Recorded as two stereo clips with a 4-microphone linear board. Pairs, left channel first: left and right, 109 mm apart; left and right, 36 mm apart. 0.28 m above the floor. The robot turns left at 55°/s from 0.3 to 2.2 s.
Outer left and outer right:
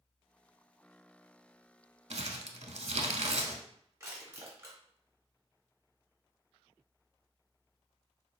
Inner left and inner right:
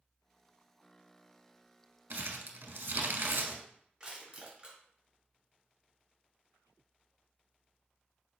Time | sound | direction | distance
2.1 | crumpling | 80° right | 0.6 m
4.0 | crushing | 25° right (ahead or behind) | 1.4 m